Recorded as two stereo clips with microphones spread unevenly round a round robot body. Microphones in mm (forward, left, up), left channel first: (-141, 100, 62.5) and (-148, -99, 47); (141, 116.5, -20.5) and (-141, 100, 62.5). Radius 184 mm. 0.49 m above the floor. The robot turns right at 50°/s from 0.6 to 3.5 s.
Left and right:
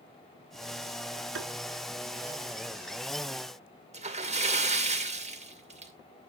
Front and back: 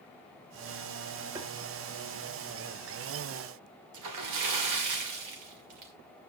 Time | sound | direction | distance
1.4 | tapping | 100° right | 1.3 m
3.9 | a splash | 140° right | 2 m